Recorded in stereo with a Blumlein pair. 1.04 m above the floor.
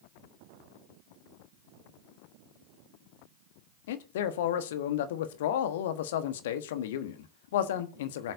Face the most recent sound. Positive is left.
turn(degrees=55)